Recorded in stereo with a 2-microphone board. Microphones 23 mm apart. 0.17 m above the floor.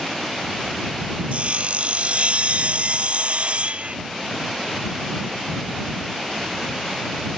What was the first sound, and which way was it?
Sawing, 60° right (ahead or behind).